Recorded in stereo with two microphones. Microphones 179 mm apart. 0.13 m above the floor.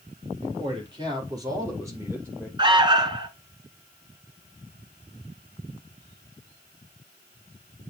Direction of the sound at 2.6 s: 25° right (ahead or behind).